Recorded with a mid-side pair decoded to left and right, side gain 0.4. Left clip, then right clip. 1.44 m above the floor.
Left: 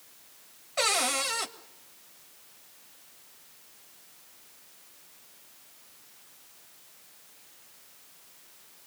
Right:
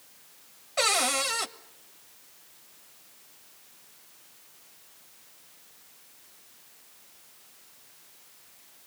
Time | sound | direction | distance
0.8 | a cupboard door | 10° right | 1.7 m